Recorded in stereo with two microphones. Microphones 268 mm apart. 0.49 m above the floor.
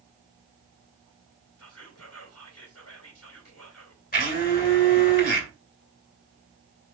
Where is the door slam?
I don't hear a door slam.